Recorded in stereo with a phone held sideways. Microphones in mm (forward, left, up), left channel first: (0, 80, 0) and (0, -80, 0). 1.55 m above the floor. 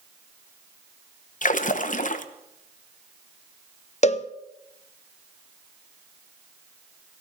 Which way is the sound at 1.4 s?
55° left (ahead or behind).